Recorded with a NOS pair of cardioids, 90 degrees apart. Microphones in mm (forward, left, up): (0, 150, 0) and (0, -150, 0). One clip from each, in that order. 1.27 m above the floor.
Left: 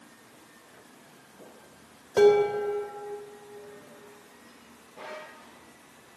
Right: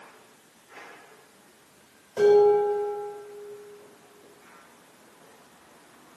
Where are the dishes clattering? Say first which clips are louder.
Right 2 dB; 60° left, 3.5 m.